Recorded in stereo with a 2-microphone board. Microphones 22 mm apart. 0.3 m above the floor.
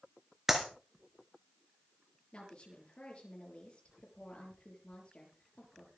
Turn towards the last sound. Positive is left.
turn(degrees=45)  # may be behind; listen again after turning